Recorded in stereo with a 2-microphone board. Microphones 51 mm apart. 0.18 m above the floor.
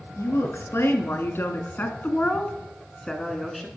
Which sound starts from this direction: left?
A woman speaking, at 0.2 s.